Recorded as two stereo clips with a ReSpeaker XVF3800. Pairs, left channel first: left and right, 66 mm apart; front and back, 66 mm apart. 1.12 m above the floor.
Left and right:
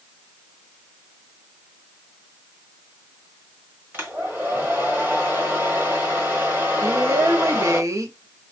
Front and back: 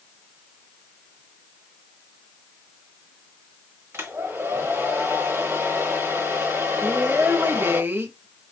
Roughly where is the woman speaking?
Behind right.